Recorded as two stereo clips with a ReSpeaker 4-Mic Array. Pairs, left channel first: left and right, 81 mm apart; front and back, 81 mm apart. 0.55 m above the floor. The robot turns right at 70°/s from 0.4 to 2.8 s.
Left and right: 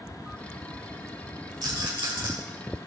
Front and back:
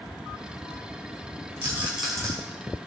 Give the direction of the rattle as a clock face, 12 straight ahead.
4 o'clock.